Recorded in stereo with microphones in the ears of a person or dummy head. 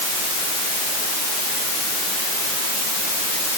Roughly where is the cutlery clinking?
No cutlery clinking in this recording.